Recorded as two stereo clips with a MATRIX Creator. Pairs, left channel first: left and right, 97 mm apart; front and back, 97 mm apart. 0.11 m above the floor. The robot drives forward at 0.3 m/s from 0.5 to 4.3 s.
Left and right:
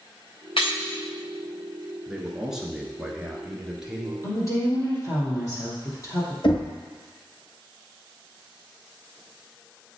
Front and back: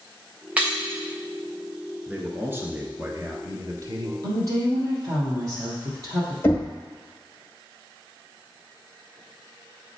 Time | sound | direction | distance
0.6 | breaking glass | 105° left | 1.8 m
2.1 | a man speaking | 155° right | 1.1 m
4.2 | a woman speaking | 140° left | 3.5 m
6.4 | knocking | 65° left | 1.8 m